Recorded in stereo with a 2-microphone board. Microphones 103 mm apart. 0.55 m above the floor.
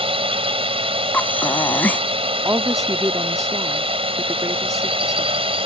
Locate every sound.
0.0 s a drone: 65° right (ahead or behind)
1.1 s breathing: 15° left (ahead or behind)
2.5 s a woman speaking: 30° right (ahead or behind)